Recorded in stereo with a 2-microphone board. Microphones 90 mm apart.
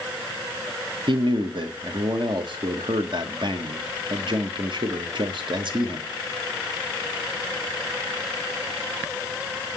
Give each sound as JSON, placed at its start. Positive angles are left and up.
{"t": 1.1, "sound": "a man speaking", "side_deg": -60, "distance_m": 1.2}